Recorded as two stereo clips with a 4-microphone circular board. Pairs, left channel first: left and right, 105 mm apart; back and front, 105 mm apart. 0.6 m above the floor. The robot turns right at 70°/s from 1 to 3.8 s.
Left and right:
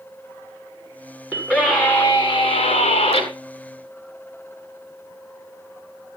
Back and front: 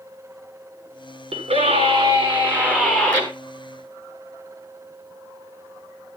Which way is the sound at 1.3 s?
25° right.